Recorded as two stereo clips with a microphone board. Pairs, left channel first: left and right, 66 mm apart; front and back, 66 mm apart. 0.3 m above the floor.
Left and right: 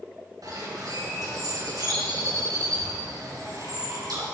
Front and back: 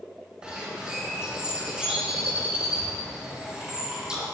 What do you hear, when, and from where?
0.4 s a bird: 105° right, 3 m